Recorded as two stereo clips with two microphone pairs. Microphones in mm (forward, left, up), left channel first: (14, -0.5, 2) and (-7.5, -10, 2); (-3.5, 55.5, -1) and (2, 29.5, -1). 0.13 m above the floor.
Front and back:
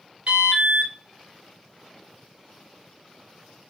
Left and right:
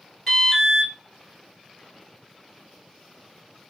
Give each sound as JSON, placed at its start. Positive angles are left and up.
{"t": 0.3, "sound": "an alarm", "azimuth_deg": -175, "distance_m": 1.8}